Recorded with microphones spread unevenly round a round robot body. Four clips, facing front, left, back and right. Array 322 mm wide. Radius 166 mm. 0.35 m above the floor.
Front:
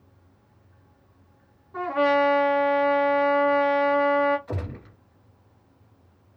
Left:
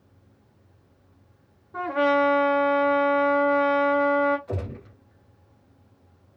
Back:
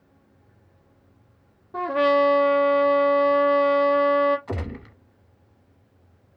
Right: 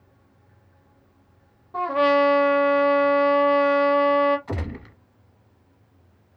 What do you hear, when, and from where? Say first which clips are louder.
1.7 s a trumpet: right 3 dB, back 2 dB; straight behind, 0.6 m
4.5 s a gunshot: right 1 dB, back 2 dB; 120° right, 0.9 m